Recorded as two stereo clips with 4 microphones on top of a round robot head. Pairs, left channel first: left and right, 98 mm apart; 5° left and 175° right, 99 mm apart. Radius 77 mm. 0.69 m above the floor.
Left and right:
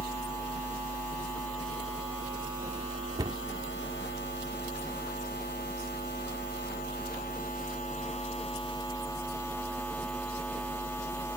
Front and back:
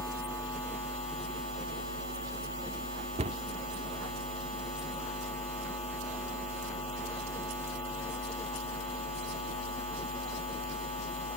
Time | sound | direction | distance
3.2 | a cupboard door | 150° right | ?